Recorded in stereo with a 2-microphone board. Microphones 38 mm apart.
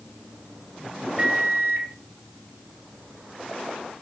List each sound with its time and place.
1.2 s a microwave: 25° right (ahead or behind), 1.4 m